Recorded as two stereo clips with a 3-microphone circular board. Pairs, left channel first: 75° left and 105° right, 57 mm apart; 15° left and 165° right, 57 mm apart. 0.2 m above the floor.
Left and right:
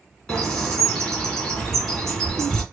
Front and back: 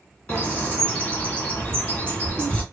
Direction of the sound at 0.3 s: 20° left.